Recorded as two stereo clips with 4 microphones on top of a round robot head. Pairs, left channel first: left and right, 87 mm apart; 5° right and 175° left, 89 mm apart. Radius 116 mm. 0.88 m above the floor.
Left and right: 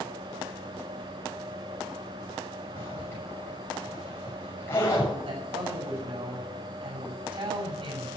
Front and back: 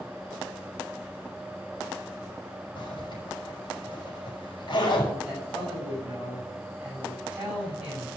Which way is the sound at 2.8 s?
25° left.